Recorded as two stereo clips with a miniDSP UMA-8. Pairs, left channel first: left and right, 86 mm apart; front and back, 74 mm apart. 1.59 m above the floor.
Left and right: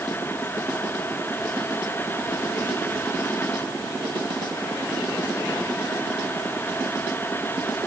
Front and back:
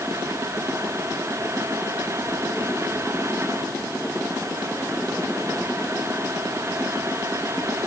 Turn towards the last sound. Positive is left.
No sound to turn to.